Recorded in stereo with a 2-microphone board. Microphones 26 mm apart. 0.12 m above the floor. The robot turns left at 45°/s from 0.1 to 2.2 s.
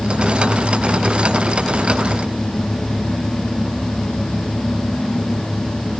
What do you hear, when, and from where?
Only background noise.